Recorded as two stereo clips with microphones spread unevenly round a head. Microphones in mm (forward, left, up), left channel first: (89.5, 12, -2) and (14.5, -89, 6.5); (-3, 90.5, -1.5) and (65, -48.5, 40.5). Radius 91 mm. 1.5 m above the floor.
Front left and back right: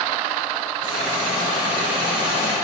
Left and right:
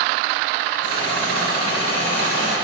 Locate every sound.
0.8 s a hiss: 105° left, 6 m